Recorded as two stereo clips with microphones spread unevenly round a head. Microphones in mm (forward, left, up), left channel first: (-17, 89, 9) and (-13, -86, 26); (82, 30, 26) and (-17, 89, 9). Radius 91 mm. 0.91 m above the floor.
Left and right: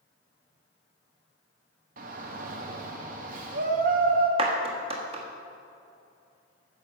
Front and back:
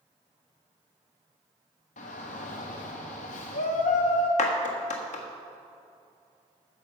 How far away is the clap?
About 1.3 m.